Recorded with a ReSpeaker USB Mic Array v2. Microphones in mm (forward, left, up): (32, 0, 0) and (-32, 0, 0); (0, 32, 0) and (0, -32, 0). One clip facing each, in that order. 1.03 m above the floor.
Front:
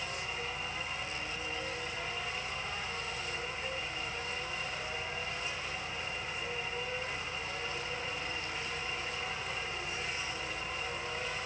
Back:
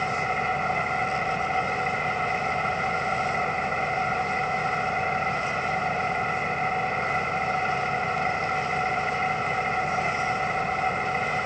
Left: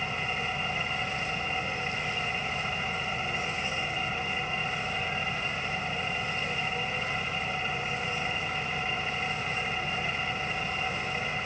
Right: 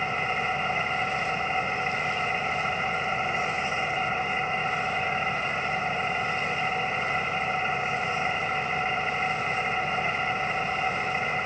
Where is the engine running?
150° right.